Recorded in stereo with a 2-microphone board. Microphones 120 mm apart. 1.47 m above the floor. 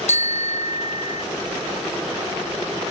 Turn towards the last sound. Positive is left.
turn(degrees=75)  # may be behind; listen again after turning